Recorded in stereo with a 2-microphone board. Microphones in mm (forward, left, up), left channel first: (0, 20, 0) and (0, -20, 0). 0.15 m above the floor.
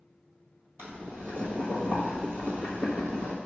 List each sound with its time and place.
0.8 s boiling: 65° right (ahead or behind), 1.4 m